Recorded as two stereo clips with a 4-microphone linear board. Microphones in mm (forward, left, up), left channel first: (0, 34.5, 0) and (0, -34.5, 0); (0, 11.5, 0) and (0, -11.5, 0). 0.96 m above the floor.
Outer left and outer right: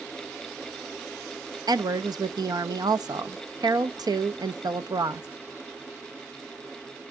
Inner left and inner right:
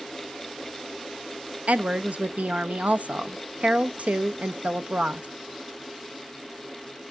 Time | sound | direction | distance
1.7 | a woman speaking | 75° right (ahead or behind) | 0.7 m